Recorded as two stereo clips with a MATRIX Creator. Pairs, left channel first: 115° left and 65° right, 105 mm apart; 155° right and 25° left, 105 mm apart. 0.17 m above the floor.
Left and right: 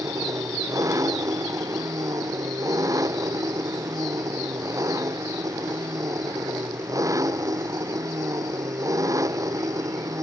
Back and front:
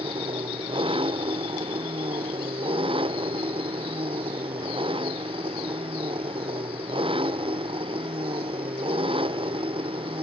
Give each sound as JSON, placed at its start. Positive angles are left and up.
{"t": 0.0, "sound": "an engine running", "azimuth_deg": -10}